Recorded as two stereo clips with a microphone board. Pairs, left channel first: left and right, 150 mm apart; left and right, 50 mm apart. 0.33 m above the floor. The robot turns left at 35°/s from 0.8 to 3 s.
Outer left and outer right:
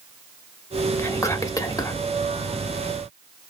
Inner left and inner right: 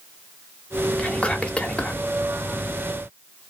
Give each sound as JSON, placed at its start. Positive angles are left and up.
{"t": 1.0, "sound": "whispering", "side_deg": 15, "distance_m": 0.9}